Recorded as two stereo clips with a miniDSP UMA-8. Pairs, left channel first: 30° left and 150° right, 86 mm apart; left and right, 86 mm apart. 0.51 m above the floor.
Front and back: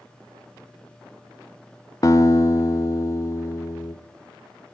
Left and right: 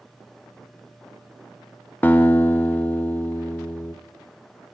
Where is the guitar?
35° left, 1.3 m.